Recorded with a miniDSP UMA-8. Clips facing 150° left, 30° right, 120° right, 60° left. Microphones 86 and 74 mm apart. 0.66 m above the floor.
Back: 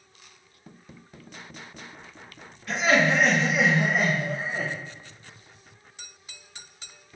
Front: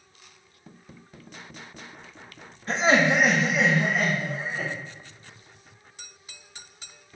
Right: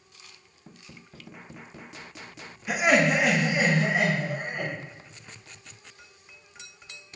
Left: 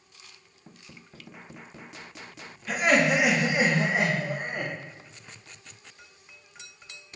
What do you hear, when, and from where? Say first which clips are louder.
2.7 s laughter: front 1 dB, right 1 dB; 50° right, 0.6 m; by 4.7 s 100° left, 1.0 m